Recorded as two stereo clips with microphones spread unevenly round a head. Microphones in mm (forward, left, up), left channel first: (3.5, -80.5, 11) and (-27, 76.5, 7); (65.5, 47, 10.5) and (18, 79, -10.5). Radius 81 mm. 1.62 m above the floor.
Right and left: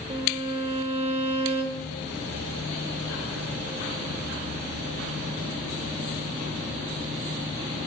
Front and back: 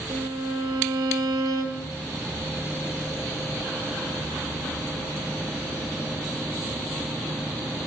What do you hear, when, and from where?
0.1 s a violin: 155° left, 1.4 m